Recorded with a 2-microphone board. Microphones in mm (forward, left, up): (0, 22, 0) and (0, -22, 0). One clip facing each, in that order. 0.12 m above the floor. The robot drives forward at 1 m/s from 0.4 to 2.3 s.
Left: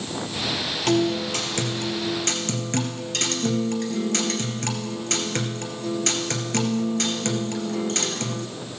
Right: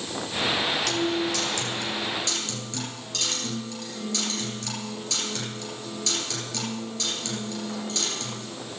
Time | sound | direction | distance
0.9 | a guitar | 40° left (ahead or behind) | 3 m